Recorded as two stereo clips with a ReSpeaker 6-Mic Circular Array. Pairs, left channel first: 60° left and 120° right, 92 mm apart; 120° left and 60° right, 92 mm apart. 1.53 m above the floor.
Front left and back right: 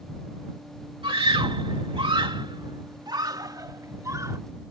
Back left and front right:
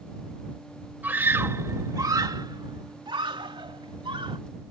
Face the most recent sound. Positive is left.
turn(degrees=-65)